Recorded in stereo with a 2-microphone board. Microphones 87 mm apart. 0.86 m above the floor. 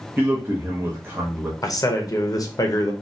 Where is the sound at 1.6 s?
40° left (ahead or behind), 0.7 m.